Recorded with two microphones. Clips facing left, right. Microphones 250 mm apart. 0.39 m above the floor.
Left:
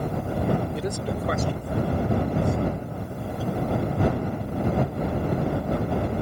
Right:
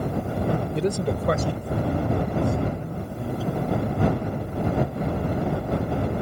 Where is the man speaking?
25° right (ahead or behind); by 4.7 s 70° right (ahead or behind).